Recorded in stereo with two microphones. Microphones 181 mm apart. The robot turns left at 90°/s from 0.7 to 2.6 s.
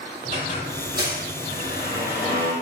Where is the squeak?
40° right, 1.6 m; by 2.5 s 155° left, 1.6 m.